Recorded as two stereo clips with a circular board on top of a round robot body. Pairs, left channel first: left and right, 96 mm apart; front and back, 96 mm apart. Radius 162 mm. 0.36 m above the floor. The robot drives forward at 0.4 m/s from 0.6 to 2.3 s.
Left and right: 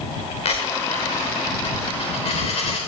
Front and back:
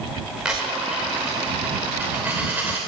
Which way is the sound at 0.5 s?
100° left.